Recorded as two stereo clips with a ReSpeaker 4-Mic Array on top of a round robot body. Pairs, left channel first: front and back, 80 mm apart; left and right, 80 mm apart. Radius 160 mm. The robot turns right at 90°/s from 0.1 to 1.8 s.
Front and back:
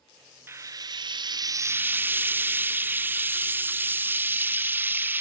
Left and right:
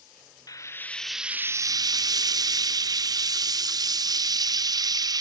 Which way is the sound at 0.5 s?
125° left.